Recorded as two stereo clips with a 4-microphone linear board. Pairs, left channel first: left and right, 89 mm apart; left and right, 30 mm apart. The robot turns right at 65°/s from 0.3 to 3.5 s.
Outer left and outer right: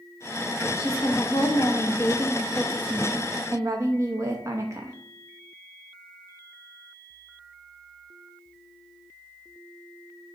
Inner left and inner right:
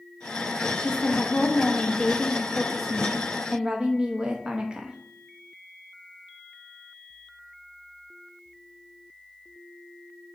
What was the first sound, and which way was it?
A woman speaking, 60° left.